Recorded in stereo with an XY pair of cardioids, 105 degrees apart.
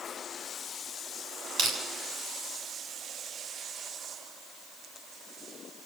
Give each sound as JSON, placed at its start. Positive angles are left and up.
{"t": 1.6, "sound": "crushing", "azimuth_deg": -55, "distance_m": 7.5}